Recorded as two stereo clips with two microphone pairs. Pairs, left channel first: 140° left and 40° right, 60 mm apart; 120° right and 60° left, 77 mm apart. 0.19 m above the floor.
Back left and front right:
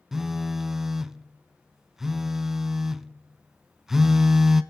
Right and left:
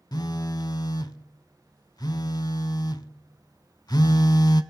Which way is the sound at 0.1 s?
125° right.